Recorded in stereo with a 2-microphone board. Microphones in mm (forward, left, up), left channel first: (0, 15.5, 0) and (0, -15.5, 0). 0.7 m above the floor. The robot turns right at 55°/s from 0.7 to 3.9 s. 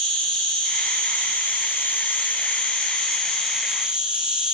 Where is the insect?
30° left, 1.9 m; by 4.5 s 155° right, 1.9 m.